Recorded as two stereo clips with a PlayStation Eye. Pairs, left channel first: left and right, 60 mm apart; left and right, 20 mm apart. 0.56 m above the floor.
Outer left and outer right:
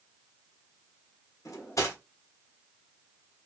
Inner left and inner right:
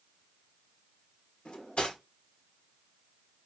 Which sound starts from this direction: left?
Cutlery clinking, at 1.4 s.